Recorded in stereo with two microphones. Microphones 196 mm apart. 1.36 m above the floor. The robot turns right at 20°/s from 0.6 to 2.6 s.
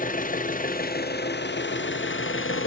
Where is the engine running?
45° left, 0.7 m; by 2.7 s 85° left, 0.7 m.